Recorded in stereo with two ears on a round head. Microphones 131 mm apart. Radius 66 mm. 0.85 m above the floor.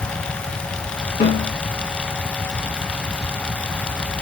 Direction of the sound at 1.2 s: 35° left (ahead or behind).